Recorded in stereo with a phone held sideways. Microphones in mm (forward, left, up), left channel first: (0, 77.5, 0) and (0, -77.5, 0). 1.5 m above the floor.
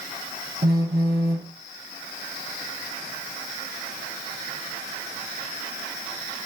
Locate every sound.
0.6 s a phone buzzing: 85° right, 1.2 m